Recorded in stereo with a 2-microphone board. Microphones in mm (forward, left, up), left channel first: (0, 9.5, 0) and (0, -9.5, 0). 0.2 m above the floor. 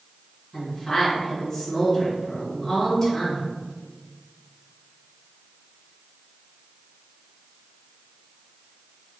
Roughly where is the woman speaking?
Centre.